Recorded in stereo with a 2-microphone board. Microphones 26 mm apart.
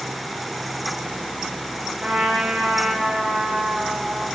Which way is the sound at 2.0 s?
55° right (ahead or behind).